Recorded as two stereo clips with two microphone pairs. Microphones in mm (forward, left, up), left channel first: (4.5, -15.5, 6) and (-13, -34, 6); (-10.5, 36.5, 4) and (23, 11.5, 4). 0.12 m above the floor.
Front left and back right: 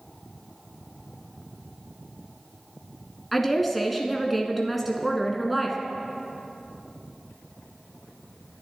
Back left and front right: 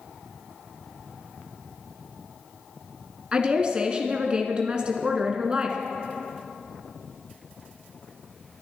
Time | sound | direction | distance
3.3 | a woman speaking | 50° right | 1.1 m